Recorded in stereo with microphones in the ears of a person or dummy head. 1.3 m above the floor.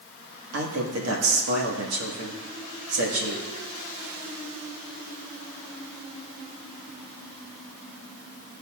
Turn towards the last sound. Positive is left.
turn(degrees=-90)